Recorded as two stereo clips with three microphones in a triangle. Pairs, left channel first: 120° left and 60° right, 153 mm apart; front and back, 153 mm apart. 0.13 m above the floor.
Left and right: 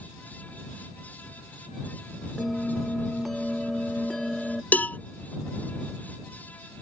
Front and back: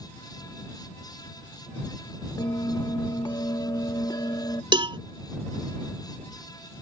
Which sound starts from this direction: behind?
A cowbell, at 4.7 s.